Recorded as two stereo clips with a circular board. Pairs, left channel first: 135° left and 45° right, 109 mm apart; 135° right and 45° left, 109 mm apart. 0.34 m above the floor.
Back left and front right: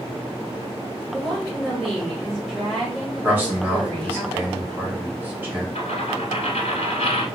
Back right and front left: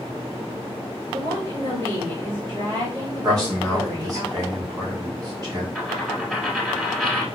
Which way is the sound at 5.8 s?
135° left.